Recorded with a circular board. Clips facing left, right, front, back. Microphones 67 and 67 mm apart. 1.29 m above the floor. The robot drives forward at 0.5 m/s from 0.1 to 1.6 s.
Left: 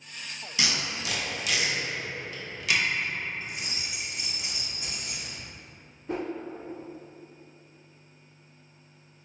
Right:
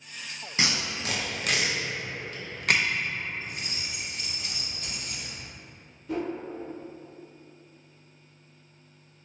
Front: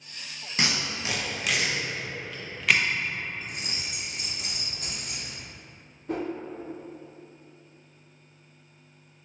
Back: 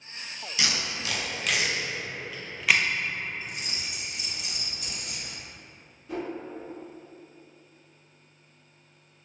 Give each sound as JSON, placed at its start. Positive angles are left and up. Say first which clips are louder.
{"t": 0.6, "sound": "tape being pulled", "louder": "right 1 dB, front 2 dB", "azimuth_deg": -40, "distance_m": 0.7}
{"t": 3.4, "sound": "keys jangling", "louder": "even, even", "azimuth_deg": 20, "distance_m": 0.6}
{"t": 6.1, "sound": "a whoosh", "louder": "right 1 dB, front 3 dB", "azimuth_deg": 35, "distance_m": 0.8}